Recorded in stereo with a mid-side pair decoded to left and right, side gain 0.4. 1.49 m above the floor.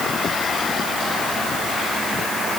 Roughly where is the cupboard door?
No cupboard door in this recording.